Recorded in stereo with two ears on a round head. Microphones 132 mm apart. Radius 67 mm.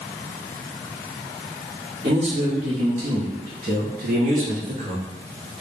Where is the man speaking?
40° right (ahead or behind), 1.9 m; by 5.0 s 55° right (ahead or behind), 1.6 m.